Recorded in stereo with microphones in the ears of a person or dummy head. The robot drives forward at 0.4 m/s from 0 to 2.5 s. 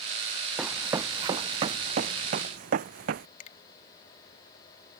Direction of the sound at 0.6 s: 10° right (ahead or behind).